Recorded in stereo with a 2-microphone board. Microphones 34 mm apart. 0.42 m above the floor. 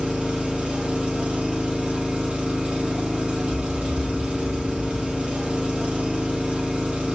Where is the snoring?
10° right (ahead or behind), 2.5 m.